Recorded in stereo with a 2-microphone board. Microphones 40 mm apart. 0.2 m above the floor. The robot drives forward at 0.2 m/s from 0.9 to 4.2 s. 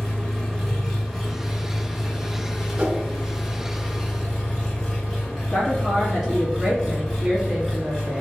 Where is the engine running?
5° left (ahead or behind), 1.8 m.